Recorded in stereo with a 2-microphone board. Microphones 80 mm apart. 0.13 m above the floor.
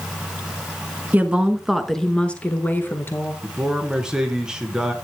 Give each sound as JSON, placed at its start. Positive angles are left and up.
{"t": 1.1, "sound": "a woman speaking", "side_deg": -20, "distance_m": 1.2}
{"t": 3.4, "sound": "a man speaking", "side_deg": -10, "distance_m": 1.6}